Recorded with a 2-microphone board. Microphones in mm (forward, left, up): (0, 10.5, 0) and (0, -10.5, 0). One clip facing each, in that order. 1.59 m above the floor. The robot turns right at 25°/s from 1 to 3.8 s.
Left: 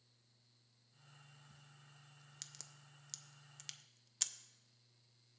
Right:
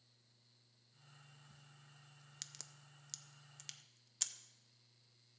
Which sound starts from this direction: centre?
A crack, at 2.4 s.